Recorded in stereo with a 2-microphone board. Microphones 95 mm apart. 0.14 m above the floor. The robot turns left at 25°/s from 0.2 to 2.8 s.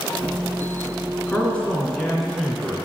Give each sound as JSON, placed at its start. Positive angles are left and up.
{"t": 1.3, "sound": "a man speaking", "azimuth_deg": 30, "distance_m": 1.5}